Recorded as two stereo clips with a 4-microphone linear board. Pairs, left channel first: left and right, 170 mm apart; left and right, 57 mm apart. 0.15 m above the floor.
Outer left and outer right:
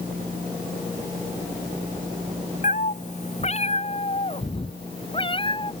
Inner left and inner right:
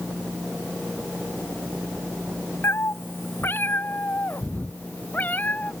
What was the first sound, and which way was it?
A cat meowing, 50° left (ahead or behind).